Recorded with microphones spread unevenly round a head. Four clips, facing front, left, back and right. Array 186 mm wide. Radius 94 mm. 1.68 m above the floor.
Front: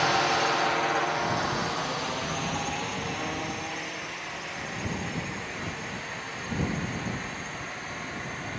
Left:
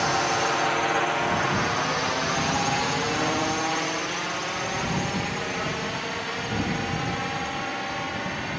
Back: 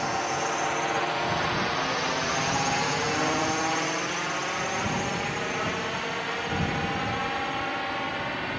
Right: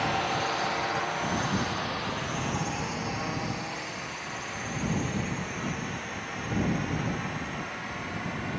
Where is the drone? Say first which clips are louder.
Left 4 dB, front 3 dB; 50° left; by 8.6 s 150° left.